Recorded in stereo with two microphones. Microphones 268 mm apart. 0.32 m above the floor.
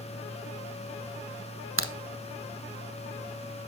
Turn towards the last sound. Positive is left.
turn(degrees=-50)  # may be behind; listen again after turning